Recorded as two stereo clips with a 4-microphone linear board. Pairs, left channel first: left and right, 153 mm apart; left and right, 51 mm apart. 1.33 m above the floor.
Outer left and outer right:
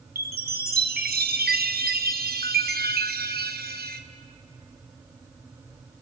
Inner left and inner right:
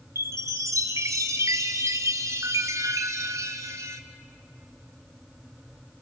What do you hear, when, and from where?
0.1 s a chime: 85° right, 1.2 m